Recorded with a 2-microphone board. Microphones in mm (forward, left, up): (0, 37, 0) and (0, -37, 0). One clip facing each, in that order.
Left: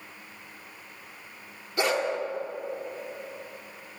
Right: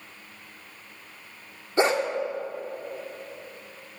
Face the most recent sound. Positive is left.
turn(degrees=-30)  # may be behind; listen again after turning